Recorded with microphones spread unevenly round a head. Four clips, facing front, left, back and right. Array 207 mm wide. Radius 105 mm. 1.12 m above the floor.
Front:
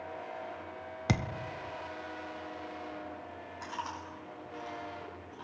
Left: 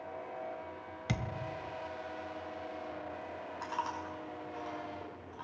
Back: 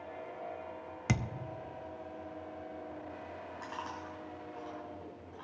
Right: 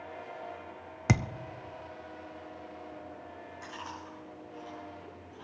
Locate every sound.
1.1 s a thud: 70° right, 0.6 m
3.6 s chewing: 70° left, 5.5 m